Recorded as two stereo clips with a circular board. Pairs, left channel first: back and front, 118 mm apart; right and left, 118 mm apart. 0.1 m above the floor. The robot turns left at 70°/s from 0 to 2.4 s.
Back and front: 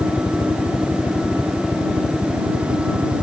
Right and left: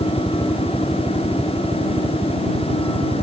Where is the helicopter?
120° right; by 3.2 s 75° left.